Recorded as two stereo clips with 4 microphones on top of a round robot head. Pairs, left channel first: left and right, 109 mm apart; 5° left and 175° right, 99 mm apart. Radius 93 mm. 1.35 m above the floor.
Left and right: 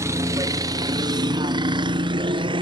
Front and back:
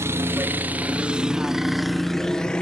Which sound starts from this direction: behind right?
A helicopter, at 0.0 s.